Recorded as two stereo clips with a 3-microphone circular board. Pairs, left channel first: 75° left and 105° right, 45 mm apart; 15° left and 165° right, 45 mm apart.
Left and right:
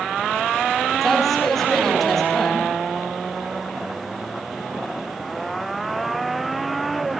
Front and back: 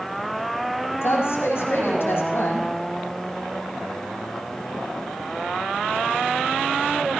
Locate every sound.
1.0 s a woman speaking: 10° right, 5 m